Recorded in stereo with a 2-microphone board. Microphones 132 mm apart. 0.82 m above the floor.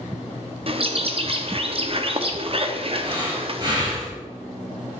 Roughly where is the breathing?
Right.